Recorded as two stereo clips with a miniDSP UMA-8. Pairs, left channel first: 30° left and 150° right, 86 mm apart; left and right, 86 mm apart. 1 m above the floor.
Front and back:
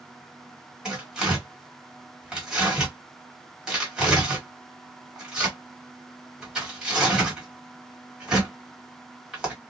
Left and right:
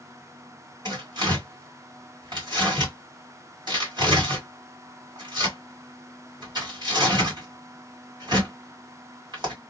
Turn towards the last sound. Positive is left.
turn(degrees=-70)